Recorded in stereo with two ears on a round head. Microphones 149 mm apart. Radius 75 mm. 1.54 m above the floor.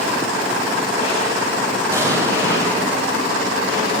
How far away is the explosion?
About 7 m.